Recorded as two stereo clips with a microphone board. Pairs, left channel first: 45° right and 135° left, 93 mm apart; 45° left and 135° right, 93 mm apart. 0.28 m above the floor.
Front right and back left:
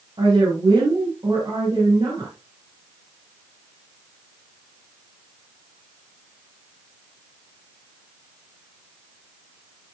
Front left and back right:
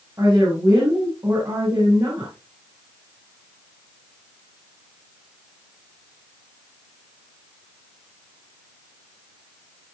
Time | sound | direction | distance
0.2 | a woman speaking | 170° left | 7 m